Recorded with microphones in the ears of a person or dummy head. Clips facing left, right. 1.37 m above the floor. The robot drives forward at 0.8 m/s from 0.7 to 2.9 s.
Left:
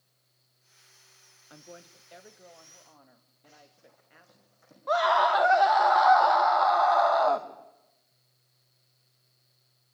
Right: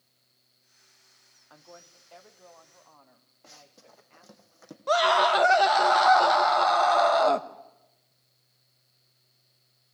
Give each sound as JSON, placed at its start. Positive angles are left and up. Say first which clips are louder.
{"t": 1.5, "sound": "a woman speaking", "louder": "left 2 dB", "side_deg": 25, "distance_m": 1.3}
{"t": 3.4, "sound": "running footsteps", "louder": "right 2 dB", "side_deg": -70, "distance_m": 3.5}
{"t": 4.9, "sound": "a scream", "louder": "right 2 dB", "side_deg": -30, "distance_m": 1.6}